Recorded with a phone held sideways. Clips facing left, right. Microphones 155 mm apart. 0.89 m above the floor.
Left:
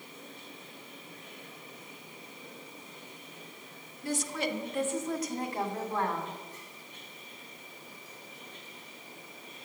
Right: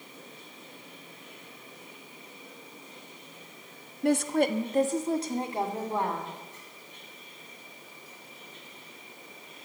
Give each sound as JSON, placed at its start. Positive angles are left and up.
{"t": 4.0, "sound": "a woman speaking", "side_deg": -65, "distance_m": 1.0}